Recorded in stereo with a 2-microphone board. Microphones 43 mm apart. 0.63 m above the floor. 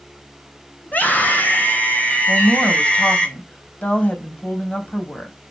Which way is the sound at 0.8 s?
45° left (ahead or behind).